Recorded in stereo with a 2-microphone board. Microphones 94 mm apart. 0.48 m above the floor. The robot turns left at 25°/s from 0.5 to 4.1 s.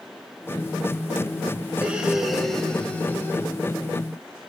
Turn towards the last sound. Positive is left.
turn(degrees=135)